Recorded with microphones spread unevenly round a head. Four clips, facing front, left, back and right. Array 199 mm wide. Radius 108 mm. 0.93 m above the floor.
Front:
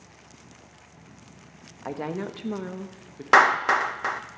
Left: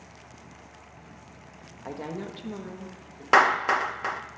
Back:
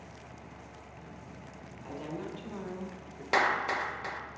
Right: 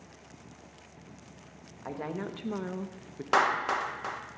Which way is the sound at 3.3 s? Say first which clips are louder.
Left 6 dB, front 10 dB; 35° left.